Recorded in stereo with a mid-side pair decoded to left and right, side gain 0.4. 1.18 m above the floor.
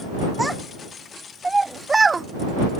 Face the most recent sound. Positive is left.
turn(degrees=-35)